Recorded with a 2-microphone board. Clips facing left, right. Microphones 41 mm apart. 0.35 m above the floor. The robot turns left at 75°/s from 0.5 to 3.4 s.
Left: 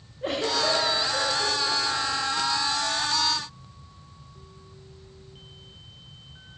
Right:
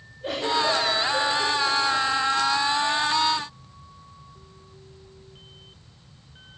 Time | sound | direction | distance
0.2 | a giggle | 50° left (ahead or behind) | 5 m